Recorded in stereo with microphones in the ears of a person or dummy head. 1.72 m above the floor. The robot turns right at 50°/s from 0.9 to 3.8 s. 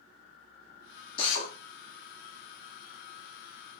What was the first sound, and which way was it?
A drill, 35° left (ahead or behind).